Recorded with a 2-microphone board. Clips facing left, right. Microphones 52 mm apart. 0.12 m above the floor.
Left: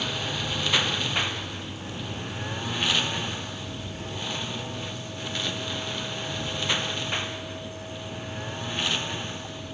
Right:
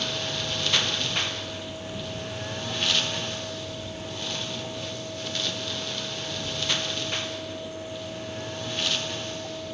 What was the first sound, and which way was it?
A lawn mower, 15° left (ahead or behind).